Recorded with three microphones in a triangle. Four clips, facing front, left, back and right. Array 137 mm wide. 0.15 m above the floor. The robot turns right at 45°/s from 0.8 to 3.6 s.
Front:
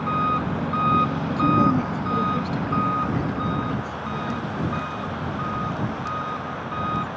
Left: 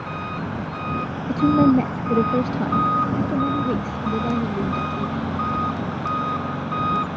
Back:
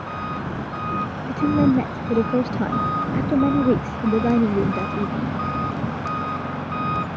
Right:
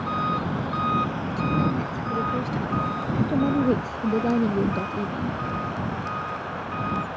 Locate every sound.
0.0 s an engine running: 15° right; by 7.2 s 110° left
1.3 s a woman speaking: 95° left; by 5.4 s 160° right